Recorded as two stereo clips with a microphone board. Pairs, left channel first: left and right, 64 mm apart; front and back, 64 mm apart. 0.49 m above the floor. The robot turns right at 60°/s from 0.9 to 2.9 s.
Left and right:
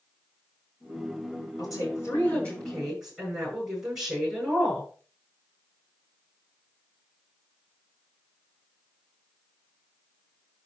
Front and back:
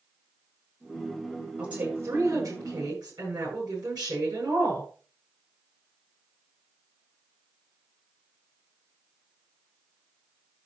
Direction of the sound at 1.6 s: 105° left.